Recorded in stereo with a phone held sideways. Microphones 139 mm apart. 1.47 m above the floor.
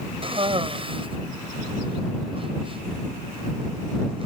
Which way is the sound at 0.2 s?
40° right (ahead or behind).